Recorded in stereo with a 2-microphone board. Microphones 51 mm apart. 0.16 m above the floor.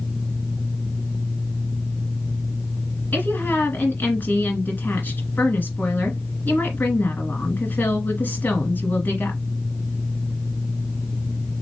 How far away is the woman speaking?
About 1.8 m.